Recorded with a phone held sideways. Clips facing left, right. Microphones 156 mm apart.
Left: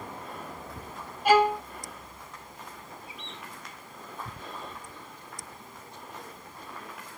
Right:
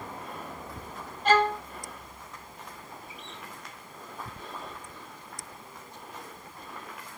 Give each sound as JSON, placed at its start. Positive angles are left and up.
{"t": 1.2, "sound": "a violin", "side_deg": 10, "distance_m": 0.6}
{"t": 3.1, "sound": "a bird", "side_deg": -45, "distance_m": 3.0}